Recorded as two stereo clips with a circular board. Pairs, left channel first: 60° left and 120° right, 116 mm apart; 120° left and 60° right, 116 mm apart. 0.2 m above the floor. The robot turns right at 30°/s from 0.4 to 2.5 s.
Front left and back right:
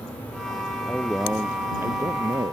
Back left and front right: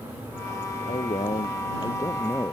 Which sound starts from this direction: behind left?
A man speaking, at 0.9 s.